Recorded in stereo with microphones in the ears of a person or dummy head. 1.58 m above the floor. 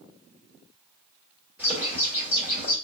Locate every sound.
1.6 s a bird: 10° right (ahead or behind), 2.5 m